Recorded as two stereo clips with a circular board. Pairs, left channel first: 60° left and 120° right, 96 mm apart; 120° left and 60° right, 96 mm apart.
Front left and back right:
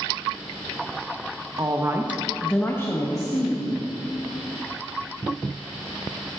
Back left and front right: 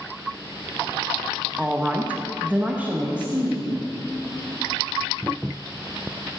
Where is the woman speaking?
135° right, 0.9 m; by 3.8 s 15° left, 1.7 m.